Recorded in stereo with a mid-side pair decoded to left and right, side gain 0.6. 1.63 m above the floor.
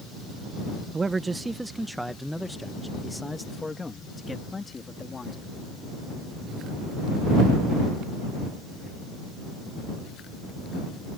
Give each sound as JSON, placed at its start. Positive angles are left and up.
{"t": 0.9, "sound": "a man speaking", "azimuth_deg": -25}